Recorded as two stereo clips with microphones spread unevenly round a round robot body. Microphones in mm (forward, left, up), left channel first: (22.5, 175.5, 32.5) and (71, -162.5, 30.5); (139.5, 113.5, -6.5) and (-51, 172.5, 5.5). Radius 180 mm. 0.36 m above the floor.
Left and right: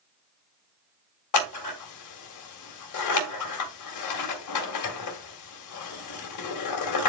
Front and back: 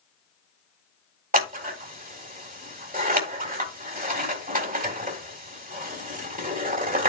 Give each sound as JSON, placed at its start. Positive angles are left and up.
{"t": 1.3, "sound": "scissors", "azimuth_deg": 125, "distance_m": 1.9}